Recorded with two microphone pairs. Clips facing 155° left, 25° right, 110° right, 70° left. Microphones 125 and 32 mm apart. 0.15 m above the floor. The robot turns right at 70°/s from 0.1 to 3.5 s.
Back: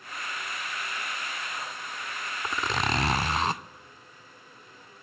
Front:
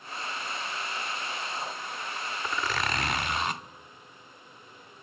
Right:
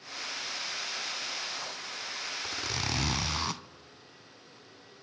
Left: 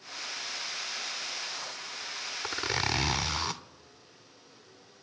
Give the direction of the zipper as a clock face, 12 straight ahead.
9 o'clock.